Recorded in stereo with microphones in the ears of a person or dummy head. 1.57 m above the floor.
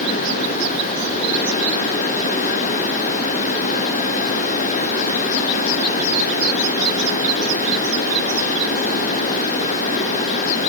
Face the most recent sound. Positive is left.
No sound to turn to.